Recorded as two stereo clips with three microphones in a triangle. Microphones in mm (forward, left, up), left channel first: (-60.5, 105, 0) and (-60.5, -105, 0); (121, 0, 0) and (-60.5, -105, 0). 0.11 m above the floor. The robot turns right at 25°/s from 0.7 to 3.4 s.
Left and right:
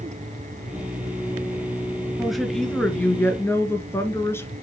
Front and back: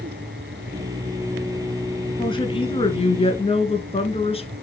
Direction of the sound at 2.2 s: 5° right.